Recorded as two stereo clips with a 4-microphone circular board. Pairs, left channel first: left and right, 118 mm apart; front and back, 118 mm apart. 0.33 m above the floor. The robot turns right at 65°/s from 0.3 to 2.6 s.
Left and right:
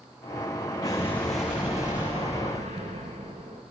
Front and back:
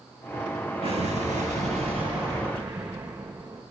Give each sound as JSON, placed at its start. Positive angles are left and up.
{"t": 0.8, "sound": "an explosion", "azimuth_deg": 145, "distance_m": 6.0}